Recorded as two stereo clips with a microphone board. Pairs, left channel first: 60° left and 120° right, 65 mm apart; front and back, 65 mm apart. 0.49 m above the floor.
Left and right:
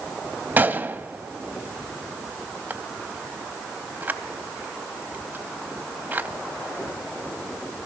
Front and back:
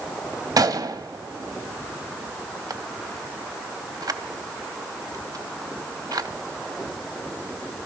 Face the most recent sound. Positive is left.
turn(degrees=180)